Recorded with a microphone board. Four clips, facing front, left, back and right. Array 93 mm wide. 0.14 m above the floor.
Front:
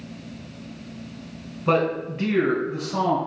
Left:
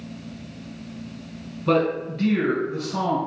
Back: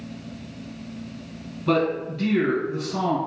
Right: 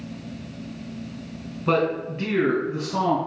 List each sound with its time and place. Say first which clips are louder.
1.7 s a man speaking: left 1 dB, front 1 dB; 25° right, 1.1 m; by 3.2 s 50° right, 1.6 m